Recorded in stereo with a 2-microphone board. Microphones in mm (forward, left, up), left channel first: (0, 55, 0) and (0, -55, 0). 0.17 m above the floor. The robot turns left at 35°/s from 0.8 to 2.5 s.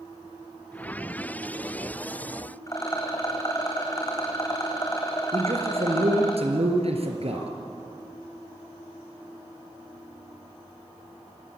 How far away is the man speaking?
About 3 m.